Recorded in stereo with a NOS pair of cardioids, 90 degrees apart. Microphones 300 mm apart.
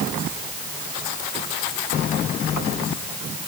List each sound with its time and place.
Only background noise.